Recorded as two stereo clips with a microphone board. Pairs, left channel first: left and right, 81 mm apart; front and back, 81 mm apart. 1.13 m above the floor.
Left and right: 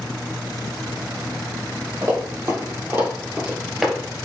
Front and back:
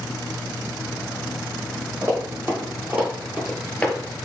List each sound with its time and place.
2.0 s running footsteps: 130° right, 2 m; by 4.0 s 5° left, 1.1 m